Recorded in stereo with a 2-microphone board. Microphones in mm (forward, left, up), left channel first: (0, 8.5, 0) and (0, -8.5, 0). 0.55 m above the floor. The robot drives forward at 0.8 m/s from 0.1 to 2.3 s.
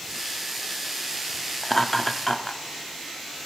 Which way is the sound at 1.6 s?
15° left (ahead or behind).